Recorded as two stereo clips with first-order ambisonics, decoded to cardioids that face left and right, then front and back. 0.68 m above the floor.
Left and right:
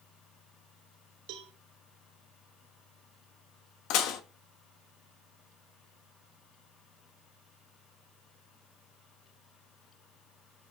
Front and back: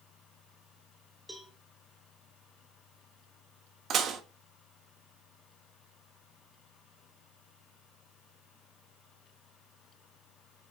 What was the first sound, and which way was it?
A cowbell, 95° right.